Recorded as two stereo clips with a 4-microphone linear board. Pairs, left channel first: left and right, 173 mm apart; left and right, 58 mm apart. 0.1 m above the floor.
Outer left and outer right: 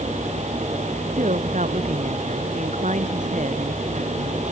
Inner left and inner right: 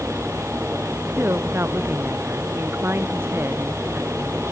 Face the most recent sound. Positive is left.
turn(degrees=-45)  # may be behind; listen again after turning